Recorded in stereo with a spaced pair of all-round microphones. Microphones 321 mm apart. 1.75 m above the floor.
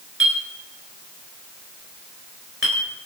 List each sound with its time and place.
0.2 s a clink: 40° right (ahead or behind), 4 m